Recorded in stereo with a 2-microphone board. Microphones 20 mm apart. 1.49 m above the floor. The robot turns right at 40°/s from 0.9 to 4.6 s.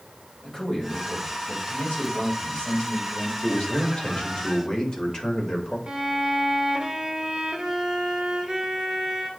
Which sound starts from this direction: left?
A man speaking, at 3.4 s.